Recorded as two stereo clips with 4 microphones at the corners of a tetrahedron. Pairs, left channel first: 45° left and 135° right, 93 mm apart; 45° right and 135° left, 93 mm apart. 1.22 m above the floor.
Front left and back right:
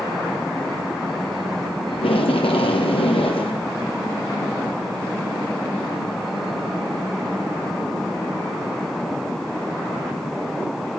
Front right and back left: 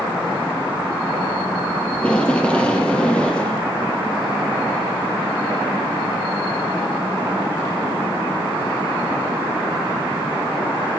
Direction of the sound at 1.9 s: 35° left.